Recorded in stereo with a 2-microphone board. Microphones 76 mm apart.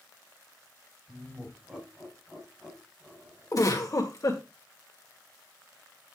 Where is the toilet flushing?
No toilet flushing in this recording.